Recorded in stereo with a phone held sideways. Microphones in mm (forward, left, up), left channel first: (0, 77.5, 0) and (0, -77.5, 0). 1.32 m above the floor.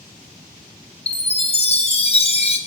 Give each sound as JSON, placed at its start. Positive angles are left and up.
{"t": 1.1, "sound": "a chime", "side_deg": 40, "distance_m": 0.9}